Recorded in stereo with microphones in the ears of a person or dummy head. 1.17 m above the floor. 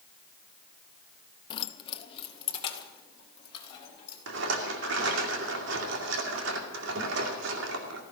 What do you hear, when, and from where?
1.5 s keys jangling: 30° left (ahead or behind), 0.7 m; by 4.2 s 35° left (ahead or behind), 4.5 m
4.3 s a rattle: 75° right (ahead or behind), 2 m